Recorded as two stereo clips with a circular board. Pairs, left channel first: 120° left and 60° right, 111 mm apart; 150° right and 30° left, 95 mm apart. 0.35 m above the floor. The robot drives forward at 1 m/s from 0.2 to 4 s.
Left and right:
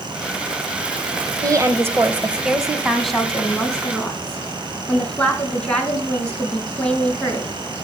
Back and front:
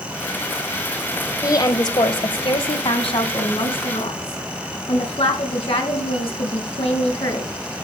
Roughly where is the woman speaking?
Right.